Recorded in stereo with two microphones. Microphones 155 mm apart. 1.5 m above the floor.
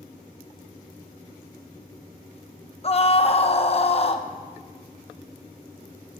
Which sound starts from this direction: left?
A scream, at 2.8 s.